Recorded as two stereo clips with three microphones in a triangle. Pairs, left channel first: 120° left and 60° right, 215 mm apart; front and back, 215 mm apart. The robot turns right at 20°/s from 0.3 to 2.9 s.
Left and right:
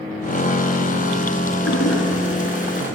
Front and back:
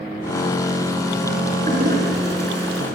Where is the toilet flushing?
130° left, 4 m; by 2.9 s 155° left, 4 m.